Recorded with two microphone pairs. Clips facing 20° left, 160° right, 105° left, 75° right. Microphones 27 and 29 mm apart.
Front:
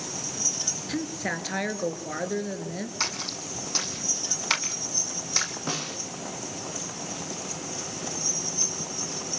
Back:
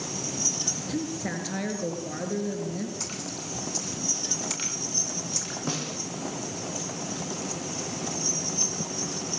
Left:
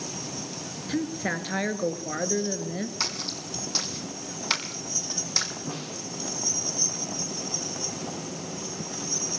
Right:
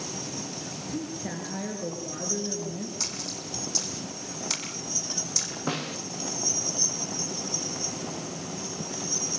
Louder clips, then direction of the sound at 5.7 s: Even, right 4 dB; 60° right.